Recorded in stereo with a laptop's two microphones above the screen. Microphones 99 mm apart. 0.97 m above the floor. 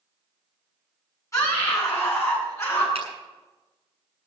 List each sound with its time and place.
1.3 s a scream: 35° left (ahead or behind), 8 m; by 2.9 s 30° left (ahead or behind), 9 m
3.0 s a finger snap: 90° right, 8 m